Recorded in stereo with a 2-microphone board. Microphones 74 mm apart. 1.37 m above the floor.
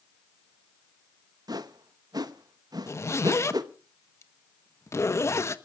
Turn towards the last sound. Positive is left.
turn(degrees=40)  # may be behind; listen again after turning